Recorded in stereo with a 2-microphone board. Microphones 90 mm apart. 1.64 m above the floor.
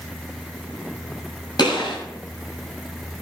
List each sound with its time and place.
1.6 s a gunshot: 55° left (ahead or behind), 6.5 m